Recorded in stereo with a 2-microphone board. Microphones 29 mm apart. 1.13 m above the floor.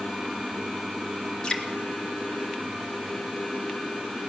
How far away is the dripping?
About 1.7 m.